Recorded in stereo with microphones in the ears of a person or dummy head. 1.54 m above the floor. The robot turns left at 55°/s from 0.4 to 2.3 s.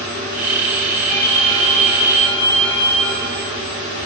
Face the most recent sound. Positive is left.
turn(degrees=110)